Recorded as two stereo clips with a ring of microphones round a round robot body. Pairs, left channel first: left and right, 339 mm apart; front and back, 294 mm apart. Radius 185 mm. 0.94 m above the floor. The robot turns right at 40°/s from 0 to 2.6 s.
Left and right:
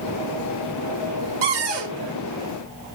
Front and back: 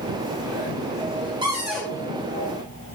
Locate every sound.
1.4 s a cupboard door: 105° right, 2.5 m; by 2.0 s 80° right, 2.5 m